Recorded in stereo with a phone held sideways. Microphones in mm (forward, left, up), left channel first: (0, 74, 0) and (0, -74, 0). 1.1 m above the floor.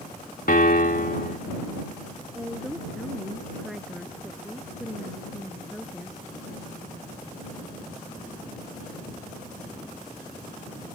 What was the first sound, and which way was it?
A piano, 80° left.